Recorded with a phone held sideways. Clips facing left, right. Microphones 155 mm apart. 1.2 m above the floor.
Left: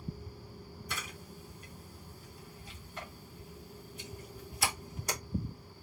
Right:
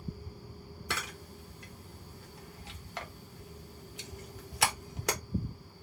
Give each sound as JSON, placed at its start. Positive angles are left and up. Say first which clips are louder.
{"t": 0.9, "sound": "a camera shutter", "louder": "right 5 dB", "side_deg": -85, "distance_m": 0.9}